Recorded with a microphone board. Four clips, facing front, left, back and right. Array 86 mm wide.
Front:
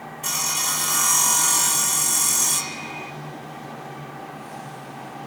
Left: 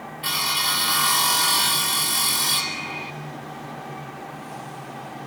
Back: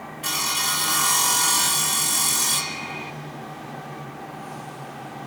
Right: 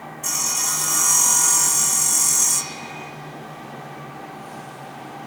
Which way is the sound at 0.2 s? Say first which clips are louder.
Left 5 dB, back 2 dB; 110° left.